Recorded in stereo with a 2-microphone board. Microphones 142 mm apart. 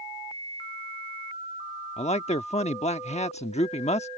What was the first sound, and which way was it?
A man speaking, 50° left (ahead or behind).